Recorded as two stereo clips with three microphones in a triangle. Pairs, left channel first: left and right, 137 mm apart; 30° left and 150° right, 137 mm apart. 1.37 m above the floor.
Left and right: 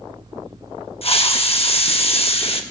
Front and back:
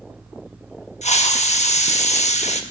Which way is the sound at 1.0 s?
55° left.